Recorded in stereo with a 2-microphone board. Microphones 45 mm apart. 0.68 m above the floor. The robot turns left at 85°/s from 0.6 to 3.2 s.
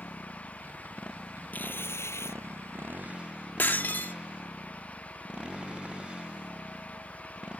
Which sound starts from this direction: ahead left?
A motorcycle, at 0.0 s.